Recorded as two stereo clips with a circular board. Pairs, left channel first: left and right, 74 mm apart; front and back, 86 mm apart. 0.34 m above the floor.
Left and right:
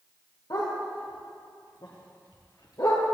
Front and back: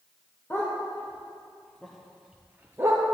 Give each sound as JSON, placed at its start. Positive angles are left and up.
{"t": 0.5, "sound": "a dog barking", "azimuth_deg": 65, "distance_m": 4.5}